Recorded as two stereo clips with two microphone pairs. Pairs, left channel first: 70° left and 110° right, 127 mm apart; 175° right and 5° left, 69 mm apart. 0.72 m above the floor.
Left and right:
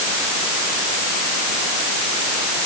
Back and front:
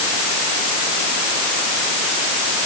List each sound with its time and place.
Only background noise.